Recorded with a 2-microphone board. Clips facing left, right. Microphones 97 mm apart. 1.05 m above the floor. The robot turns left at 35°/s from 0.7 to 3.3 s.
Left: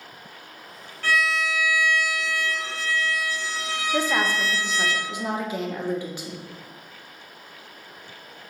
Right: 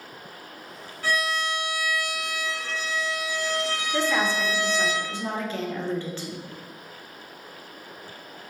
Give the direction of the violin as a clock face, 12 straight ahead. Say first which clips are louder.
Left 3 dB; 12 o'clock.